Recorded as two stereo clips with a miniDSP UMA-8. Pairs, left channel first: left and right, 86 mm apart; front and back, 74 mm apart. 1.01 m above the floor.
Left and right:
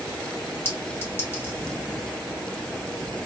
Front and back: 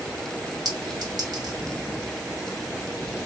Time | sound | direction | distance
0.7 | a clink | 155° left | 1.7 m